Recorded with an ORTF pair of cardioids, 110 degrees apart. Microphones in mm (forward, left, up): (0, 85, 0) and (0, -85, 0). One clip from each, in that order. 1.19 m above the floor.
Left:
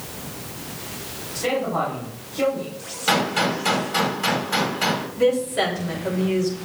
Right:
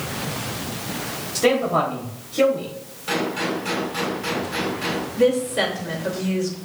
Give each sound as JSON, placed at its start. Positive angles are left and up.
{"t": 1.4, "sound": "a man speaking", "azimuth_deg": -45, "distance_m": 3.5}
{"t": 3.1, "sound": "a gunshot", "azimuth_deg": 55, "distance_m": 2.5}
{"t": 5.2, "sound": "a woman speaking", "azimuth_deg": -15, "distance_m": 3.0}